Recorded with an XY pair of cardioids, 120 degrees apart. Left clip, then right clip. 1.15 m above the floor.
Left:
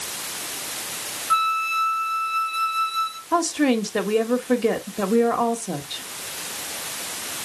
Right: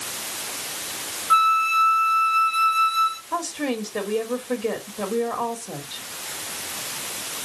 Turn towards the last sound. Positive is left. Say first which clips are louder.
# left 6 dB
turn(degrees=35)